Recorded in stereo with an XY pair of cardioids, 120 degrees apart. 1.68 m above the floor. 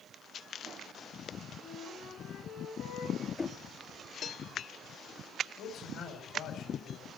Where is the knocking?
25° left, 1.1 m.